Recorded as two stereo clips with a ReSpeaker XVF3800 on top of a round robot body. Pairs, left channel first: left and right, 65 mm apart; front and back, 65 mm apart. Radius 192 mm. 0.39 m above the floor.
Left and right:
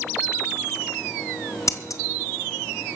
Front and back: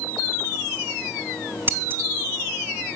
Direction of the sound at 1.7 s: 120° left.